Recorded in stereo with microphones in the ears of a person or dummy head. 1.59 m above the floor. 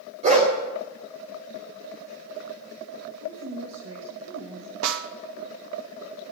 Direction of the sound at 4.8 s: 80° right.